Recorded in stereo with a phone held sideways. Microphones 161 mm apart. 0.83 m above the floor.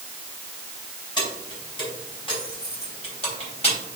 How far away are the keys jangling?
About 4.5 m.